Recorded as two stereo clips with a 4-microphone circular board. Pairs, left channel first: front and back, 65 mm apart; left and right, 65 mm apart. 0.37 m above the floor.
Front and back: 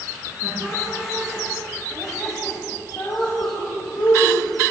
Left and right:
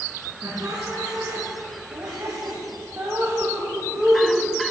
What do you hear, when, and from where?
0.4 s laughter: 120° right, 3.5 m; by 4.4 s 10° right, 3 m